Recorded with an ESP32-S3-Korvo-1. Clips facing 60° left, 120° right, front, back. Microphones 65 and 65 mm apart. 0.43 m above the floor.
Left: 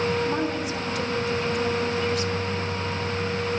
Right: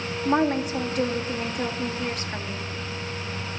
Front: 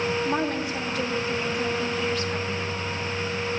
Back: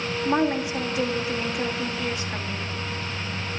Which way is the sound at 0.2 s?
115° right.